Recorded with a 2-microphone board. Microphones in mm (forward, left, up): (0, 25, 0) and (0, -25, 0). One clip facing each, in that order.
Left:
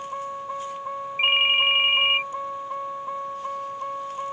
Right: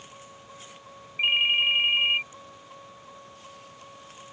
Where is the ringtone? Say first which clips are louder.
Left 3 dB; 20° left (ahead or behind).